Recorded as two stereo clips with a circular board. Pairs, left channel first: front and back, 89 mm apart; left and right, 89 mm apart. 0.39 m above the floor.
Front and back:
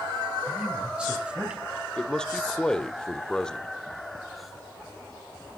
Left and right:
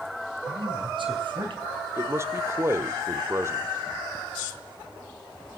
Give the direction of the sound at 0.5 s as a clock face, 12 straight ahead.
3 o'clock.